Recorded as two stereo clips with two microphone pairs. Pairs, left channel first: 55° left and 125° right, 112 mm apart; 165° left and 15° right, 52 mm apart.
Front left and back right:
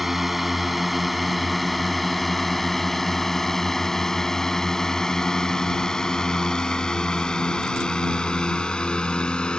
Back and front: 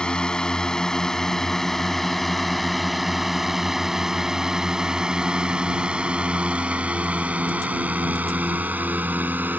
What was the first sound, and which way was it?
A drone, 150° left.